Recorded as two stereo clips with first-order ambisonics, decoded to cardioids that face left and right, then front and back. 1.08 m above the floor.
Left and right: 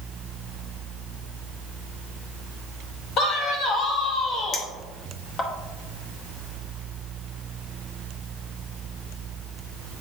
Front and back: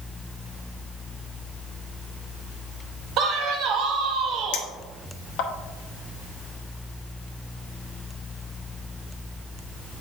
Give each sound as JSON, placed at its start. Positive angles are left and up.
{"t": 3.2, "sound": "a man speaking", "azimuth_deg": 140, "distance_m": 1.2}
{"t": 4.5, "sound": "a clink", "azimuth_deg": 25, "distance_m": 1.0}